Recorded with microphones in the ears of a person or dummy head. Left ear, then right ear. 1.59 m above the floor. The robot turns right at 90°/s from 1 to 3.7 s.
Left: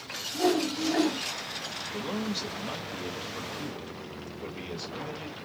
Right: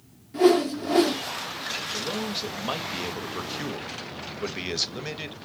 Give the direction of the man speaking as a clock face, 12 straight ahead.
7 o'clock.